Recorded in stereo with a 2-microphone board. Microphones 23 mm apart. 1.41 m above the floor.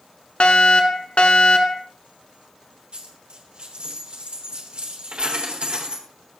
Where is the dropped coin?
50° right (ahead or behind), 3 m.